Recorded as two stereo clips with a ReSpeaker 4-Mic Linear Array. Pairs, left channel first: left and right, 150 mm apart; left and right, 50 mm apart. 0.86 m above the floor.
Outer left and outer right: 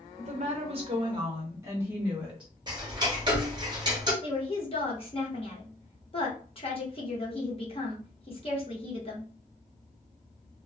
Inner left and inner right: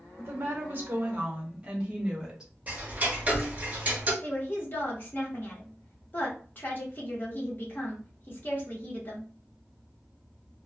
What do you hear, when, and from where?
0.2 s a woman speaking: 50° right (ahead or behind), 0.9 m; by 2.5 s 5° right (ahead or behind), 1.4 m
2.7 s ticking: 30° right (ahead or behind), 0.8 m
4.2 s a woman speaking: 40° left (ahead or behind), 0.8 m